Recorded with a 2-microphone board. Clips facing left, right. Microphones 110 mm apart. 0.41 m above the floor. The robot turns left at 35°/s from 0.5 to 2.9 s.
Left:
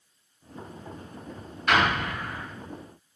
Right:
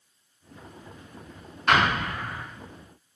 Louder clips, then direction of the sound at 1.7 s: Right 1 dB; 45° right (ahead or behind).